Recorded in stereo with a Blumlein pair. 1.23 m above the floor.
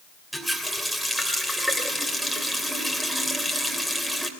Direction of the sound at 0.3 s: 5° right.